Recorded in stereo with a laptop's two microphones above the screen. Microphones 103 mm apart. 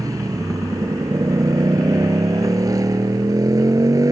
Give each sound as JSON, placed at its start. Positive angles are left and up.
{"t": 0.0, "sound": "a motorcycle", "side_deg": -35}